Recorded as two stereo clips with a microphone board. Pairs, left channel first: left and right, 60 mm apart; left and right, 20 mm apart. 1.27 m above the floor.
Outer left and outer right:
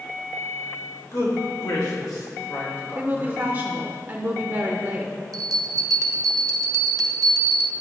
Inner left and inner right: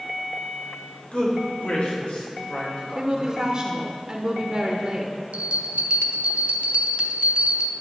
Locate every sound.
1.1 s a man speaking: 75° left (ahead or behind), 2.5 m; by 3.4 s 30° left (ahead or behind), 2.5 m
3.0 s a woman speaking: 40° right (ahead or behind), 0.7 m
5.3 s a bell: 80° right, 0.6 m